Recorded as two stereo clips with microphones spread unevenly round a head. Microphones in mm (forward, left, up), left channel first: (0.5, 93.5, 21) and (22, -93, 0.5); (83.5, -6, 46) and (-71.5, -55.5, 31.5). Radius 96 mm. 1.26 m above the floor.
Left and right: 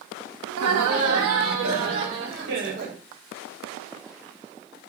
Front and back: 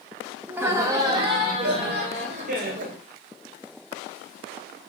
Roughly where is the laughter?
Right.